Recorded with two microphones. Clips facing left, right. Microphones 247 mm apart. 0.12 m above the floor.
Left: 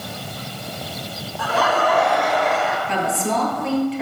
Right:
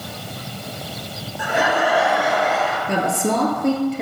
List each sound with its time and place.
1.4 s laughter: 20° right (ahead or behind), 1.1 m; by 2.8 s centre (ahead or behind), 1.7 m
2.9 s a woman speaking: 50° right (ahead or behind), 2 m